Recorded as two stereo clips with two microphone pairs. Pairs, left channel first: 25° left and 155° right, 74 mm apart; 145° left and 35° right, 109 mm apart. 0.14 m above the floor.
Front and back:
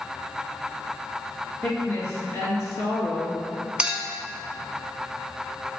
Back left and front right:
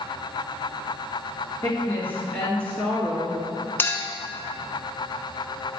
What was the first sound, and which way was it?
A woman speaking, 85° left.